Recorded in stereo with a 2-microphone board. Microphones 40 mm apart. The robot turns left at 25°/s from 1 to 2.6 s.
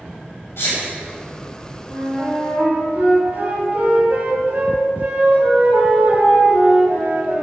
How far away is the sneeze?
About 2.5 m.